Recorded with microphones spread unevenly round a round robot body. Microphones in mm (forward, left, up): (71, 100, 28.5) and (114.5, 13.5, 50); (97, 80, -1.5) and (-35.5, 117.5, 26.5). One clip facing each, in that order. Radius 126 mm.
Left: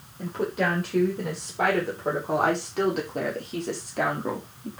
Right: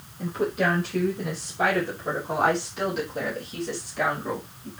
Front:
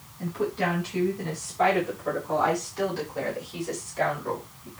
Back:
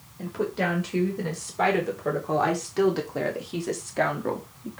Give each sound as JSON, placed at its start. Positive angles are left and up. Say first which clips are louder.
{"t": 0.2, "sound": "a woman speaking", "louder": "right 1 dB, even", "azimuth_deg": 160, "distance_m": 4.5}